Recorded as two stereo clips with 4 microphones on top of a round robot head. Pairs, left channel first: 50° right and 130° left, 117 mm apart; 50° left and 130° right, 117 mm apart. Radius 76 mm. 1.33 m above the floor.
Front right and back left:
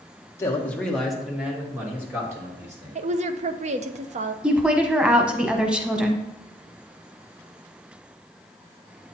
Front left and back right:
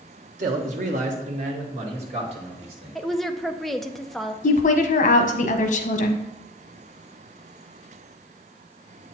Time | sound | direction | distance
0.4 | a man speaking | 120° right | 1.1 m
3.0 | a woman speaking | 140° left | 0.7 m
4.4 | a woman speaking | 50° left | 0.9 m